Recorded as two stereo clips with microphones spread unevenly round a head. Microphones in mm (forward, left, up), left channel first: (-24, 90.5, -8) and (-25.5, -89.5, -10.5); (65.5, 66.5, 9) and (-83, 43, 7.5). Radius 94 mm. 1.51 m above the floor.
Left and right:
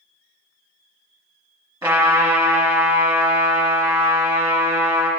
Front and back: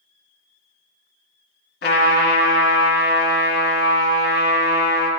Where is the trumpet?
15° right, 2.5 m.